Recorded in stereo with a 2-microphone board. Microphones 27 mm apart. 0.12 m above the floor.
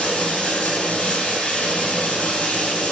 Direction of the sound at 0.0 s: 70° left (ahead or behind).